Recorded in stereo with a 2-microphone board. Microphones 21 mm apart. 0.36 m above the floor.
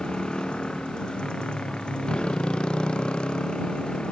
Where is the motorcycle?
45° left (ahead or behind).